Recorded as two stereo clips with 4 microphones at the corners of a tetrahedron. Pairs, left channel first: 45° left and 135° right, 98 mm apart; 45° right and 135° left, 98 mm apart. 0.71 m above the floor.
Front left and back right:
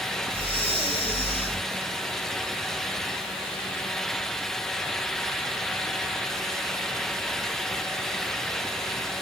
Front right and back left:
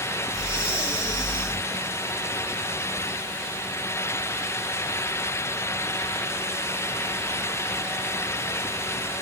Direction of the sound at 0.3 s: 55° left.